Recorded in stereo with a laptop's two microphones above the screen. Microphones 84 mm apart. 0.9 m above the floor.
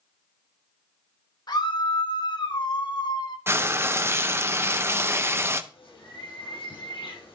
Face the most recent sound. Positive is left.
turn(degrees=85)